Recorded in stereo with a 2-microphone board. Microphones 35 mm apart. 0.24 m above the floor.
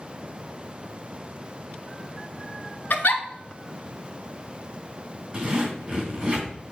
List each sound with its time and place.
2.9 s a giggle: 75° left (ahead or behind), 0.9 m
5.3 s a zipper: 25° right (ahead or behind), 2.5 m